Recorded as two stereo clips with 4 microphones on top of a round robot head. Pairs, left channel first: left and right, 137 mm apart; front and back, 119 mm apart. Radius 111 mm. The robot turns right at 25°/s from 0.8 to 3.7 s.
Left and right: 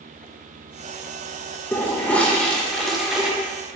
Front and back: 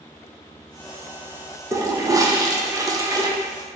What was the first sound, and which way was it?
A toilet flushing, 145° left.